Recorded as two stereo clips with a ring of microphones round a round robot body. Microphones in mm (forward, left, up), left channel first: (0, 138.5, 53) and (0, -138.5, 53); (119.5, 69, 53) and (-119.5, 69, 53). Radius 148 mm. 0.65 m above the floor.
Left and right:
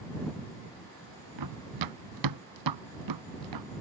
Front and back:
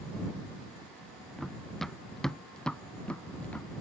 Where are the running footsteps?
90° right; by 3.7 s 85° right.